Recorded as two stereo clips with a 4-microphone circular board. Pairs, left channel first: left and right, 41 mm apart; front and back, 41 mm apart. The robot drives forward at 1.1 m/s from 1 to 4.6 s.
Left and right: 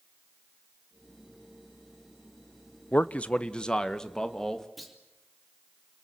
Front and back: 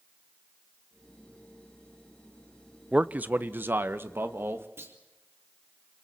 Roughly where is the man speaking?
Behind left.